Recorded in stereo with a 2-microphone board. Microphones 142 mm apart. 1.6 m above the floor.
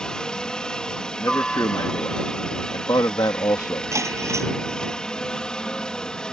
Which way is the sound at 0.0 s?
5° left (ahead or behind).